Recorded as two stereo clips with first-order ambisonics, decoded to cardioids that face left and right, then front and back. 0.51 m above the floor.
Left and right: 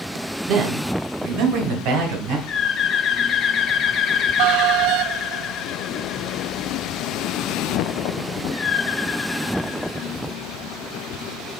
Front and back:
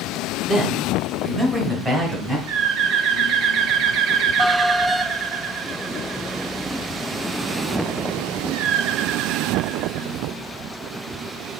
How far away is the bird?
About 0.6 m.